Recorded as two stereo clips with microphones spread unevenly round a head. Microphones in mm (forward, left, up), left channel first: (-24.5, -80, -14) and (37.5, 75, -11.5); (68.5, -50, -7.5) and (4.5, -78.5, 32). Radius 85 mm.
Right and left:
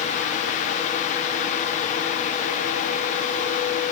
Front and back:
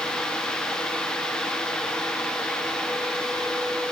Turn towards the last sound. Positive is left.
No sound to turn to.